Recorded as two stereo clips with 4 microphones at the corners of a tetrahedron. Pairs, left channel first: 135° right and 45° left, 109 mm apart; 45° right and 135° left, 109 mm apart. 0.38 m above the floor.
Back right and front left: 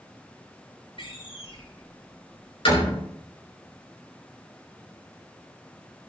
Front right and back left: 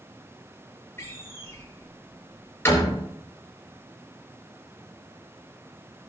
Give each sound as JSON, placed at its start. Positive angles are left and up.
{"t": 1.0, "sound": "a door slam", "azimuth_deg": -110, "distance_m": 5.5}